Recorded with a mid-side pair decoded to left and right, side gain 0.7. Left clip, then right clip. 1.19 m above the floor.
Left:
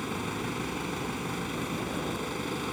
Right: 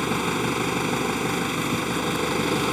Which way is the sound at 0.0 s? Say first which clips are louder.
Right 9 dB; 40° right.